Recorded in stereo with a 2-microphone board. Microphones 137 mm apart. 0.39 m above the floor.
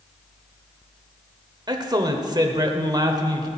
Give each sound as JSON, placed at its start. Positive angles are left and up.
{"t": 1.7, "sound": "a man speaking", "side_deg": -30, "distance_m": 1.0}